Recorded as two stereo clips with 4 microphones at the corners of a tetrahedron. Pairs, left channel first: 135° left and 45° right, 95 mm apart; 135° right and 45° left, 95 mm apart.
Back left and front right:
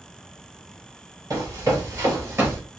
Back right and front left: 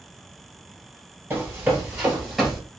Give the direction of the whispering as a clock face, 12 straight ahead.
I don't hear whispering.